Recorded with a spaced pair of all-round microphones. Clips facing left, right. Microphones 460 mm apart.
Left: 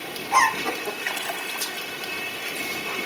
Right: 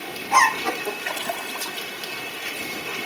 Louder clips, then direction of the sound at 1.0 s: Right 2 dB; 60° right (ahead or behind).